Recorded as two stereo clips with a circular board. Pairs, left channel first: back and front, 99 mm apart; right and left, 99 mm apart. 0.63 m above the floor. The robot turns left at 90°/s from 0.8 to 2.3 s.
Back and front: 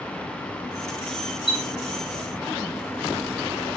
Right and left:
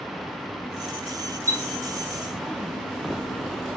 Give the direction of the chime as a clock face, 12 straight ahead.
7 o'clock.